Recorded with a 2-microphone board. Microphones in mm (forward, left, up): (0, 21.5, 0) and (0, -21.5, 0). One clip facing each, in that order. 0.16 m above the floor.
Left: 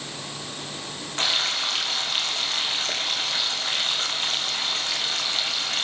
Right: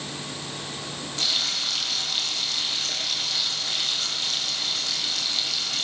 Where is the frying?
40° left (ahead or behind), 4 m.